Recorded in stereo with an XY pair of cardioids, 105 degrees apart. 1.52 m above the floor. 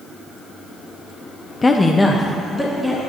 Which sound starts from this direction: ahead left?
A woman speaking, at 1.6 s.